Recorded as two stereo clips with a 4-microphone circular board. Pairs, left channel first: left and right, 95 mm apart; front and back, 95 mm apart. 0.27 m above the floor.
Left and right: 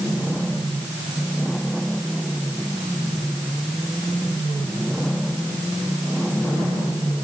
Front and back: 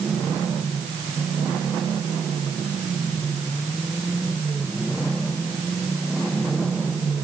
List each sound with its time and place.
Only background noise.